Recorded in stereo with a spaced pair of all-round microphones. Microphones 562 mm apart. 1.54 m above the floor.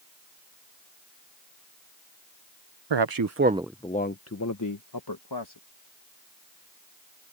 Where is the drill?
I don't hear a drill.